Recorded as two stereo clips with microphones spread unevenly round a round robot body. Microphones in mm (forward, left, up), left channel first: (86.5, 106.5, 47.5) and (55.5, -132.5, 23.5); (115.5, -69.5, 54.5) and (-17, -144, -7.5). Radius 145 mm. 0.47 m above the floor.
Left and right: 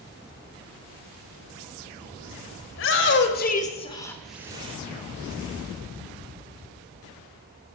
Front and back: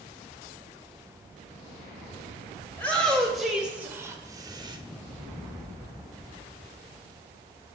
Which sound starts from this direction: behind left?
A shout, at 2.7 s.